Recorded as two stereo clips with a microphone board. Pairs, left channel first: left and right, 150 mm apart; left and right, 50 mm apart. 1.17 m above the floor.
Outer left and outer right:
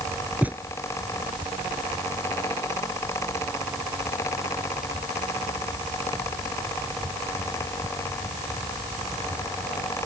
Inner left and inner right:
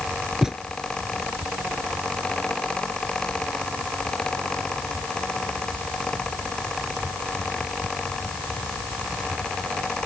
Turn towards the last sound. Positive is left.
turn(degrees=-10)  # may be behind; listen again after turning